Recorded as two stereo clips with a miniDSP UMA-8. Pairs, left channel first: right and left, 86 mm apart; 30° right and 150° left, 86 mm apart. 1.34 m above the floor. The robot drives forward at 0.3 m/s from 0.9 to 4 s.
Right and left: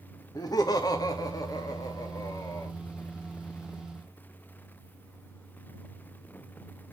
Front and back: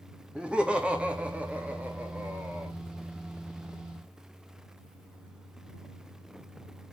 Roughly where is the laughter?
Behind right.